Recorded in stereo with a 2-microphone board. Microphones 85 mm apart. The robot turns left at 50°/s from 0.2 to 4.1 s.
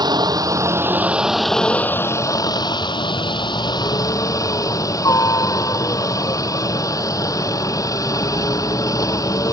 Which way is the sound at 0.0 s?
120° right.